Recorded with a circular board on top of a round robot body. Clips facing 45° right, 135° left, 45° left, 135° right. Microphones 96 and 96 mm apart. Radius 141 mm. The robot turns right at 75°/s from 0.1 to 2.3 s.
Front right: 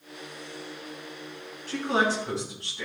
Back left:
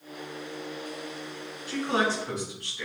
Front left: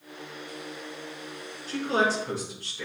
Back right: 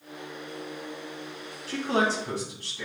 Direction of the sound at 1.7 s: 155° right.